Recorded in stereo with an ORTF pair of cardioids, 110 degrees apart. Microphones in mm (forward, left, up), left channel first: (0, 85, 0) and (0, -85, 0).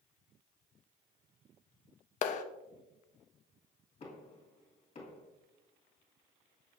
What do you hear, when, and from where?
2.2 s a clap: 50° left, 0.6 m
4.0 s knocking: 40° left, 2 m